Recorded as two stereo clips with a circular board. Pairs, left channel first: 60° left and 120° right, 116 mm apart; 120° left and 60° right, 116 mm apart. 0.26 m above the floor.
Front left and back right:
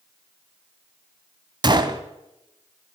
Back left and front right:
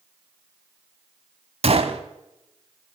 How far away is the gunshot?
About 0.7 m.